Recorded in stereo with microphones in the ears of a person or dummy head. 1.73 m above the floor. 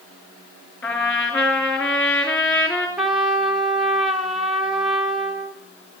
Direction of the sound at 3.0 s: 5° right (ahead or behind).